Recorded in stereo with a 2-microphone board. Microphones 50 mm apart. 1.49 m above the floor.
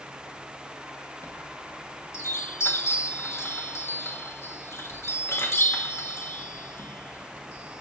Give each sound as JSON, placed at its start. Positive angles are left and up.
{"t": 1.2, "sound": "a chime", "side_deg": 65, "distance_m": 1.0}